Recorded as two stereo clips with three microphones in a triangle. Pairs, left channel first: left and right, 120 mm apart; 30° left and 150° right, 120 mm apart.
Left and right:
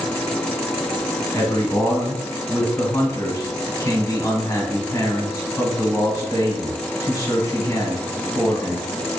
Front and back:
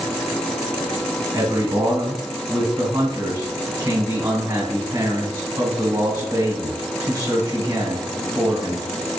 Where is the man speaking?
150° left, 1.2 m.